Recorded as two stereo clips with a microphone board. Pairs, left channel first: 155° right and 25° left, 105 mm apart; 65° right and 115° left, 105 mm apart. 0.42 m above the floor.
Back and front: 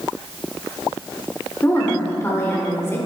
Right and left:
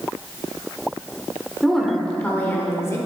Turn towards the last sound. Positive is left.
turn(degrees=-105)